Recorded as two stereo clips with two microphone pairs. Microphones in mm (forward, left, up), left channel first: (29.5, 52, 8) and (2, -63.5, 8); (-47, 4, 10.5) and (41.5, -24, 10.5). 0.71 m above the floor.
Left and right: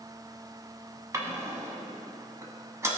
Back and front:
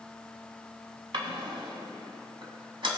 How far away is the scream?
I don't hear a scream.